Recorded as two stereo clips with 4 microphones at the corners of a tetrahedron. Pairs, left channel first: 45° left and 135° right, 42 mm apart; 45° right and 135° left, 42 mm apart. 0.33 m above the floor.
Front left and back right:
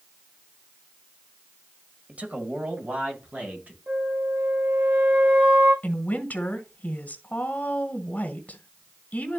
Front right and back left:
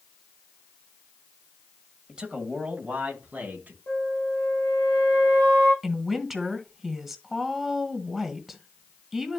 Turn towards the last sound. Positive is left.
turn(degrees=60)